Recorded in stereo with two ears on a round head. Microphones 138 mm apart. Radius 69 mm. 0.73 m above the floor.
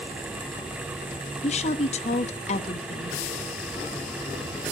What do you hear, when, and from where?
1.4 s a woman speaking: 45° left (ahead or behind), 0.7 m